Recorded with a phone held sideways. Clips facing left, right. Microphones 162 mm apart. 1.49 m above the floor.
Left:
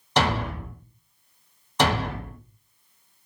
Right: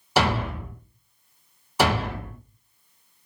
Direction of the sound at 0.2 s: 5° right (ahead or behind).